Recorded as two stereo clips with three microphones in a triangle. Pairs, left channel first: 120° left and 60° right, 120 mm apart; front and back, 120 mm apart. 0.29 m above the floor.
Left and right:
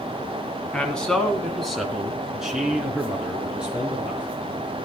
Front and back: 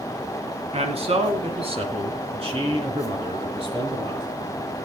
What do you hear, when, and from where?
0.7 s a man speaking: 160° right, 2.5 m; by 4.3 s 140° right, 5 m